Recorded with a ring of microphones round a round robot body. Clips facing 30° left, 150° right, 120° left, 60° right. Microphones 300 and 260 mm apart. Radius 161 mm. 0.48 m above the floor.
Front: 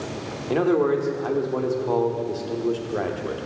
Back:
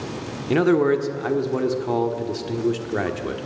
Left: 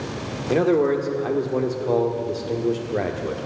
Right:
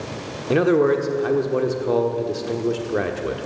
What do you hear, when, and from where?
0.5 s a man speaking: 130° right, 1.3 m